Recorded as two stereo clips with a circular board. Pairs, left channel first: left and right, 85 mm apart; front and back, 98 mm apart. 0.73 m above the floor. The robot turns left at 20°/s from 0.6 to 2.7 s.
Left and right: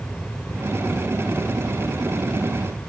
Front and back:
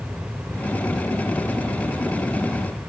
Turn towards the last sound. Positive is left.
No sound to turn to.